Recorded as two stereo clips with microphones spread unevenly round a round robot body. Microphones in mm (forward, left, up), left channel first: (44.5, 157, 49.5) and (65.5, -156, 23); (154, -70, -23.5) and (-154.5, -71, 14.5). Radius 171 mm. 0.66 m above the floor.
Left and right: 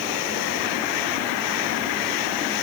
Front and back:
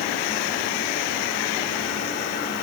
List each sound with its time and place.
Only background noise.